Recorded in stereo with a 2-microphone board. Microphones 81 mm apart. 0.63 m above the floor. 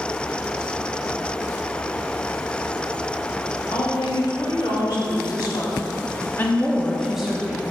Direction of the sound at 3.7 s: 70° left (ahead or behind).